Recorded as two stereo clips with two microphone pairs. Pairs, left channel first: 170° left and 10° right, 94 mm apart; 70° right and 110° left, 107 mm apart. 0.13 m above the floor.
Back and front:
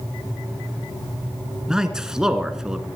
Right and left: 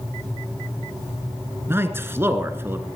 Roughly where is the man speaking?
Left.